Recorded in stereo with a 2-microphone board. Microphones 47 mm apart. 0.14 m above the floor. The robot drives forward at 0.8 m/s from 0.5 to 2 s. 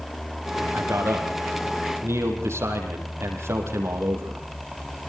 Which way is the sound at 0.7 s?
70° right (ahead or behind).